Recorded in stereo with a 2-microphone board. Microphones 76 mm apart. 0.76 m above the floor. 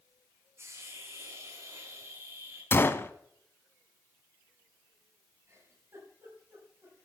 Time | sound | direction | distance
0.6 | a hiss | 35° right (ahead or behind) | 7.5 m
2.7 | a gunshot | 30° left (ahead or behind) | 0.8 m
5.5 | a giggle | 35° right (ahead or behind) | 7.5 m